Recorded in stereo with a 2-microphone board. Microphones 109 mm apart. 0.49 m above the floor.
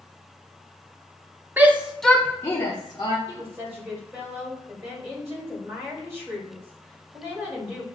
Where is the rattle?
No rattle in this recording.